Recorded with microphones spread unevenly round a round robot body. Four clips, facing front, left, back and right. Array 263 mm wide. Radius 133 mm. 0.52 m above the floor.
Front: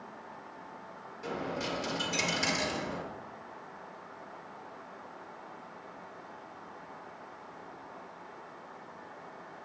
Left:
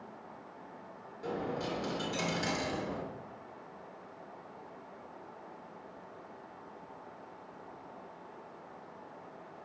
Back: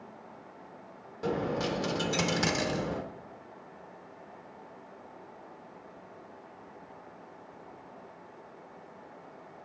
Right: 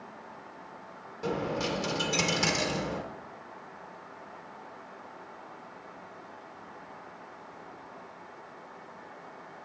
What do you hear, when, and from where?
1.2 s a dropped coin: 150° right, 0.5 m